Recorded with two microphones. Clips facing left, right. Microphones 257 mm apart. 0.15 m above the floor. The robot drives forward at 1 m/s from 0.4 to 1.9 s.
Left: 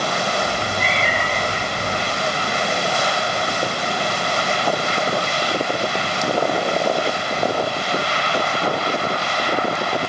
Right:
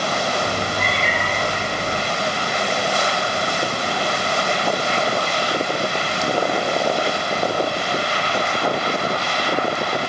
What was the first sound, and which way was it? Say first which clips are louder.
A cat meowing: even; 55° right (ahead or behind).